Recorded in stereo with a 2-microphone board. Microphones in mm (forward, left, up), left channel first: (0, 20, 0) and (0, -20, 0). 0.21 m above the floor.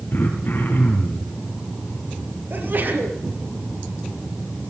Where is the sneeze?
55° right (ahead or behind), 5.5 m.